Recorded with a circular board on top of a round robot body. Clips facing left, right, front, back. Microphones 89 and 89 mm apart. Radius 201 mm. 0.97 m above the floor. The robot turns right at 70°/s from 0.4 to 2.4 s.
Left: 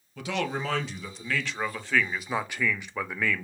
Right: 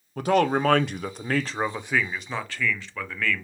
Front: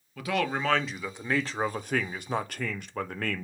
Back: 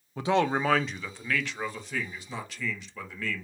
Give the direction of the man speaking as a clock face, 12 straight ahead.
4 o'clock.